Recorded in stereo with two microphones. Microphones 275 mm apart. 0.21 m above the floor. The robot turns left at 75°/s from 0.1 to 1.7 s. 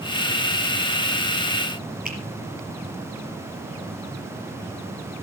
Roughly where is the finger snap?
Right.